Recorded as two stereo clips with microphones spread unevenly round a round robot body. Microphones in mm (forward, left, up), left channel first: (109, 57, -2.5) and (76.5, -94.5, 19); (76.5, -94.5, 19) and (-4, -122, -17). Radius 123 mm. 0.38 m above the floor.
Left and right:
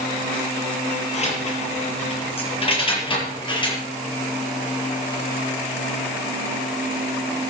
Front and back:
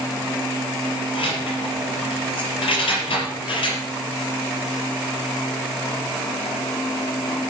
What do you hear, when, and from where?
1.1 s keys jangling: 35° left, 5.5 m; by 3.8 s 20° left, 5.5 m